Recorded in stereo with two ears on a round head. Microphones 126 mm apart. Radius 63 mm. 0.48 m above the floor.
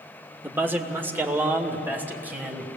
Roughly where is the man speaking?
Centre.